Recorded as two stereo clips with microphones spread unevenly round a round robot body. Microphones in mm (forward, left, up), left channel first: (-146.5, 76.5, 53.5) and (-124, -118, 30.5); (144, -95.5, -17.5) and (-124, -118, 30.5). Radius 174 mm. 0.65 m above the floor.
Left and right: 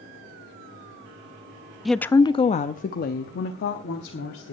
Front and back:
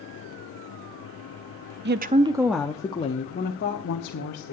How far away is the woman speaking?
About 0.5 m.